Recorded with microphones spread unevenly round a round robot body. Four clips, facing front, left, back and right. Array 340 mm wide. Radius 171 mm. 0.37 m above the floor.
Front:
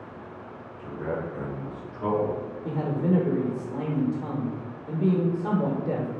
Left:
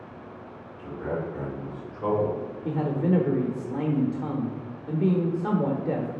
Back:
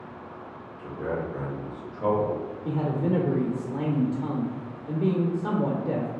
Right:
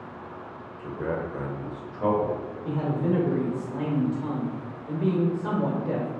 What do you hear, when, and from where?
0.8 s a man speaking: 120° right, 1.5 m; by 2.4 s 75° right, 2.5 m
2.6 s a man speaking: 95° left, 0.9 m